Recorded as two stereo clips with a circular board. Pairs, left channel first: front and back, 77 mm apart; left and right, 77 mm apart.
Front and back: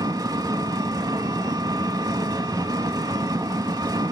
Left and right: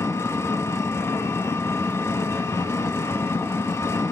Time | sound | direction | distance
0.0 | an engine running | 145° left | 0.7 m